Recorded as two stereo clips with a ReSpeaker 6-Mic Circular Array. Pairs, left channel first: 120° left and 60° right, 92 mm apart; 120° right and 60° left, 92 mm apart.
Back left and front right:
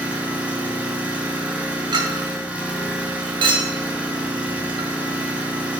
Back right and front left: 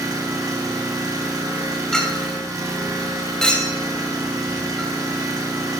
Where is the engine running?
15° left, 1.4 m.